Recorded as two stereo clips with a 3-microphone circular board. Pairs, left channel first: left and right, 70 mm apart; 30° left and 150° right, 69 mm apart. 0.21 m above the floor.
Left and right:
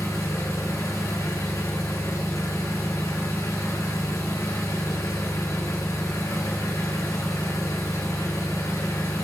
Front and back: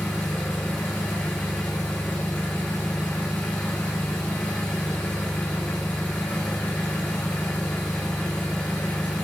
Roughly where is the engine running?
Left.